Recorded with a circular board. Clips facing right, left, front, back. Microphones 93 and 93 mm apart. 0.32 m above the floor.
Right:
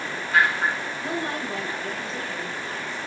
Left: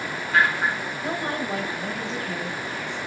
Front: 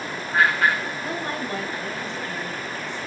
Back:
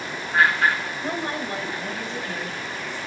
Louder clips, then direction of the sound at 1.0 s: Left 2 dB, back 1 dB; 140° left.